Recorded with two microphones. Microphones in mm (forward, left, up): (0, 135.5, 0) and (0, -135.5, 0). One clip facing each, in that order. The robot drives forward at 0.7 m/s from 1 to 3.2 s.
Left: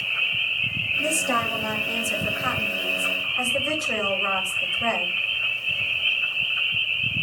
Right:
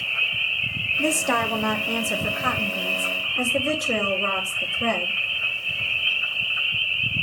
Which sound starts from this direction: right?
A woman speaking, at 1.0 s.